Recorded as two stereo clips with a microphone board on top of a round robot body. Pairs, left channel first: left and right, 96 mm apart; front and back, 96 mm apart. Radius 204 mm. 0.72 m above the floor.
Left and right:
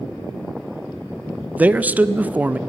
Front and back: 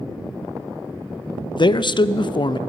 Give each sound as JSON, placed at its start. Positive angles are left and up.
{"t": 1.6, "sound": "a man speaking", "azimuth_deg": -20, "distance_m": 0.6}